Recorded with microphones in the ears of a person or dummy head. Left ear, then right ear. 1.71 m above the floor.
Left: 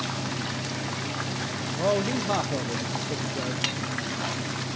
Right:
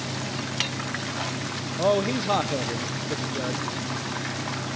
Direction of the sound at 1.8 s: 15° right (ahead or behind).